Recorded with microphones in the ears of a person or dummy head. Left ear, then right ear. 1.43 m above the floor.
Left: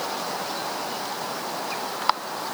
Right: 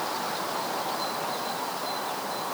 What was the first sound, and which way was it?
Only background noise.